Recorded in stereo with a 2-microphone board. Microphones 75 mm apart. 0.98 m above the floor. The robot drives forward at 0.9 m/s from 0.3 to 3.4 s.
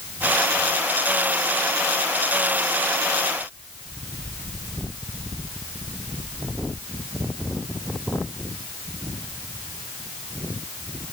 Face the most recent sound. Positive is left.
No sound to turn to.